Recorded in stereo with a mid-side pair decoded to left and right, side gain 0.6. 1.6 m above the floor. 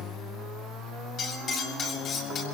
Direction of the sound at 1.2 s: 45° left.